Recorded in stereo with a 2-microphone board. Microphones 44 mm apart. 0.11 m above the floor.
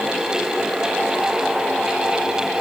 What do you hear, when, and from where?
Only background noise.